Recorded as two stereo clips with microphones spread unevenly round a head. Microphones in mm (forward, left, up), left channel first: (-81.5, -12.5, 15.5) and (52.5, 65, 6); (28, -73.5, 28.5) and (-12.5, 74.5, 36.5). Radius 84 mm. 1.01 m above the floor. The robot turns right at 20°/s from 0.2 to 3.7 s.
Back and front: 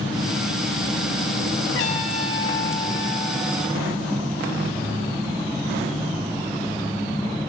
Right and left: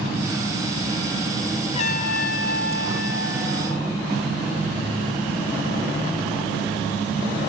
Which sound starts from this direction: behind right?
A trumpet, at 1.7 s.